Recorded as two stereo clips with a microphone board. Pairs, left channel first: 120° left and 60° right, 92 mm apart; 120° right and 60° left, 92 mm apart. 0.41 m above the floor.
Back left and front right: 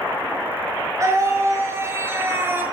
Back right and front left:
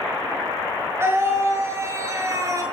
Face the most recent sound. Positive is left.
turn(degrees=5)